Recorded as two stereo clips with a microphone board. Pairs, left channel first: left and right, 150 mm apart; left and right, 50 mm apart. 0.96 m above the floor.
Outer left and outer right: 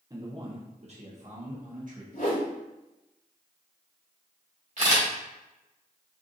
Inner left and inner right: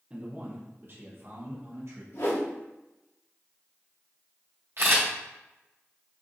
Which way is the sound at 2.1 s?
80° left.